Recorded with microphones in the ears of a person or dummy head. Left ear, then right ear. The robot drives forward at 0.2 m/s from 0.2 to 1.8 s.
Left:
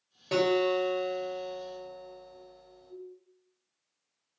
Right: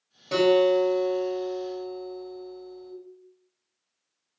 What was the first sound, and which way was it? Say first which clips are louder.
A guitar: right 6 dB; 10° left (ahead or behind).